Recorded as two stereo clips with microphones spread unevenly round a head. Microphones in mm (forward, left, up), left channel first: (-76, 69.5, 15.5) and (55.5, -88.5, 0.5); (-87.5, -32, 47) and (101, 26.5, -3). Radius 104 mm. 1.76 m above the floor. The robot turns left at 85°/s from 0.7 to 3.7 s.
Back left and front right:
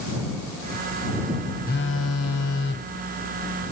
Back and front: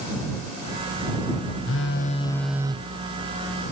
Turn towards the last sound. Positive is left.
turn(degrees=5)